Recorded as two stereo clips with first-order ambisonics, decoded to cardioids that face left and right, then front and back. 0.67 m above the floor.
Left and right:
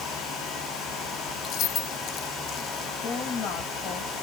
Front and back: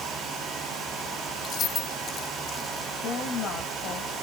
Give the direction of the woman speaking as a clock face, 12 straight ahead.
11 o'clock.